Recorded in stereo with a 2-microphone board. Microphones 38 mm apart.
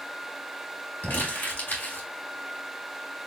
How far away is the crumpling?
About 2.0 m.